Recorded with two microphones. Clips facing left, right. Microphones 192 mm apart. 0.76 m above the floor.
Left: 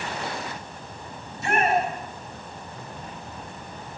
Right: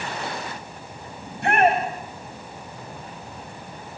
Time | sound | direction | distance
1.2 | a shout | 60° right (ahead or behind) | 5 m